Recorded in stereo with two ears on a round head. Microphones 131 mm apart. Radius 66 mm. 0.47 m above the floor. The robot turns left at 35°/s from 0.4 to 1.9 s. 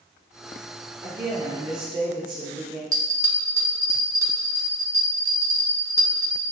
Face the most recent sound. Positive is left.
turn(degrees=-25)  # may be behind; listen again after turning